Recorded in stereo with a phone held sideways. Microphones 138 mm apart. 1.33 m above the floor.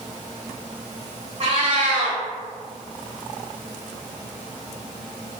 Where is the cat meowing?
45° right (ahead or behind), 1.2 m.